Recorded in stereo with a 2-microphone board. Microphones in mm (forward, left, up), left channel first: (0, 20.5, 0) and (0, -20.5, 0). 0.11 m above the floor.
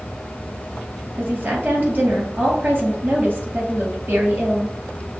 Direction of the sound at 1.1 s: 55° right (ahead or behind).